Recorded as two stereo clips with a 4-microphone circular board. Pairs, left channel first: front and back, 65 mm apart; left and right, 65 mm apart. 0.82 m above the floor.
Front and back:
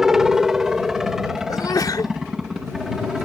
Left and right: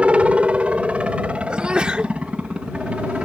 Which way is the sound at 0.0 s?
110° right.